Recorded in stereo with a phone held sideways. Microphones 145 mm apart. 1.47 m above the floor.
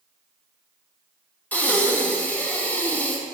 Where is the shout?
I don't hear a shout.